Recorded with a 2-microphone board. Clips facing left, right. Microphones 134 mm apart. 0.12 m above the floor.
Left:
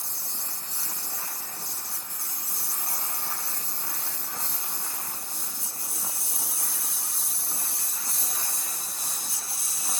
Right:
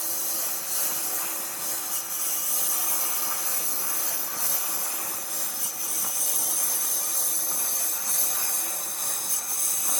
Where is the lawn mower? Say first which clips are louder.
Right 5 dB; 90° right; by 10.0 s 55° right (ahead or behind).